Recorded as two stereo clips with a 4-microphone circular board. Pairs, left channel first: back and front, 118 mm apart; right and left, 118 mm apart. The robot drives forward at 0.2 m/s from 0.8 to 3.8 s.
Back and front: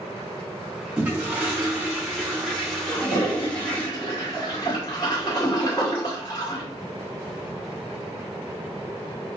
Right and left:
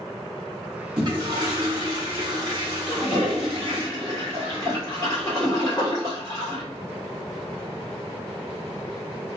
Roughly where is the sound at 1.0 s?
Ahead left.